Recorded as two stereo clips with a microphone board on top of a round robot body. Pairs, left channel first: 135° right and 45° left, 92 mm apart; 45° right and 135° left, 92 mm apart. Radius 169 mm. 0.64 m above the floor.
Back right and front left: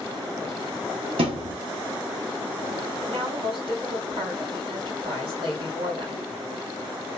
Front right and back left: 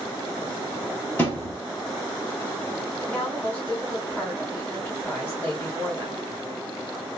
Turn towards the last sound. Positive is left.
turn(degrees=25)